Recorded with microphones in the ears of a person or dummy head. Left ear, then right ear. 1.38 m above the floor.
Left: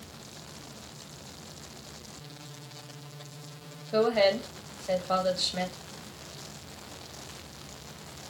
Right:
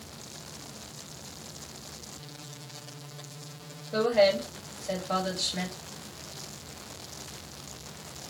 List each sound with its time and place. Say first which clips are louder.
3.9 s a woman speaking: right 1 dB; 15° left (ahead or behind), 1.3 m